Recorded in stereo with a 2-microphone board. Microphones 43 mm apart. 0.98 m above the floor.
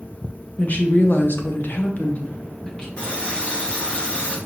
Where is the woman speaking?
40° left (ahead or behind), 0.8 m; by 2.9 s 20° left (ahead or behind), 1.0 m.